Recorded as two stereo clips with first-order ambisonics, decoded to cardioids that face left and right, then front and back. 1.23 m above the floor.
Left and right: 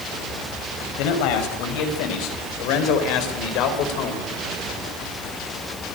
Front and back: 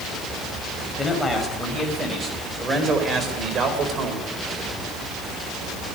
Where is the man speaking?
90° left, 6.5 m; by 4.3 s 130° left, 4.5 m.